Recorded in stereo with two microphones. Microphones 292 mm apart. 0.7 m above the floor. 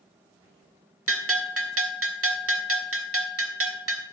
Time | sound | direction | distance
1.1 | a bell | 55° right (ahead or behind) | 1.4 m